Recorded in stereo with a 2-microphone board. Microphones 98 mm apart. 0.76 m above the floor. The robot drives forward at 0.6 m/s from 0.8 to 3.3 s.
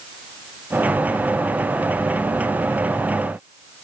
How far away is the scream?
I don't hear a scream.